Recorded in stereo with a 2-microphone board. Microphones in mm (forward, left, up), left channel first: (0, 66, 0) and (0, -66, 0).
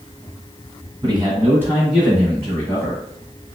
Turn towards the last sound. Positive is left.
turn(degrees=20)  # may be behind; listen again after turning